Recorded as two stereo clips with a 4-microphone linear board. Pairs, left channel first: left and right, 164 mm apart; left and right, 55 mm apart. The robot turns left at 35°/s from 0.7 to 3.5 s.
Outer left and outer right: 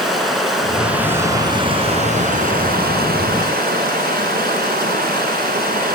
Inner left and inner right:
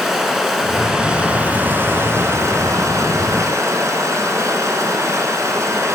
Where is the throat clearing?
No throat clearing in this recording.